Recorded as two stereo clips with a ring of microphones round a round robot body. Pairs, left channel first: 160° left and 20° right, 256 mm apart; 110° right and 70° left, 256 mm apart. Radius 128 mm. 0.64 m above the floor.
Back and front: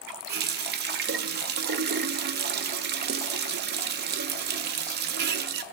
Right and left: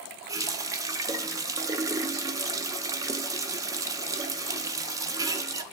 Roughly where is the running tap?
Ahead.